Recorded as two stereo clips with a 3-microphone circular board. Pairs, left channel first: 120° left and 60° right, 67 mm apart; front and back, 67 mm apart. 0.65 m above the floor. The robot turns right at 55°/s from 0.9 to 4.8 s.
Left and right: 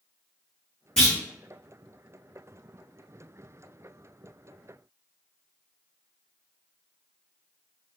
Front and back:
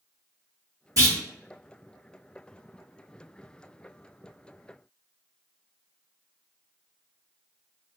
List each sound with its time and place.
1.0 s a clunk: 165° right, 1.7 m; by 1.2 s 150° right, 1.7 m